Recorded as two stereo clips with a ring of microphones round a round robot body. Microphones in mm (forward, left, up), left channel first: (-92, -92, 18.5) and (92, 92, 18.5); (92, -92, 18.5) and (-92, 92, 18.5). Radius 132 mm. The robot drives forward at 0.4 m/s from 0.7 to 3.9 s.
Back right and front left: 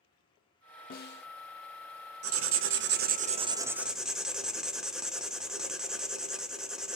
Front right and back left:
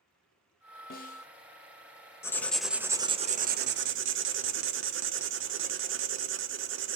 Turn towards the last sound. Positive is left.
turn(degrees=135)